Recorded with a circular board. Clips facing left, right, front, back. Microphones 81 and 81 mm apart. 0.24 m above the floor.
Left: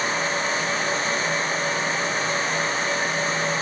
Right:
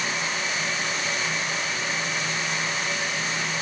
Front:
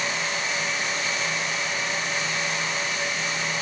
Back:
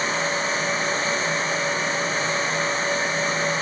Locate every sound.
Only background noise.